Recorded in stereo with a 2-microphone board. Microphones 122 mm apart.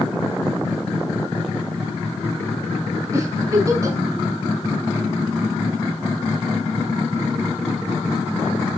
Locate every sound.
3.1 s a giggle: 25° right (ahead or behind), 3.5 m